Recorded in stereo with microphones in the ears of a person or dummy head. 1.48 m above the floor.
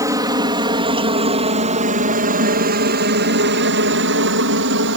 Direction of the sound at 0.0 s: 15° right (ahead or behind).